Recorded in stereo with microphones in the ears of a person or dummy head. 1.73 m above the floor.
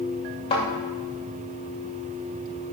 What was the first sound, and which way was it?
A thud, 35° left (ahead or behind).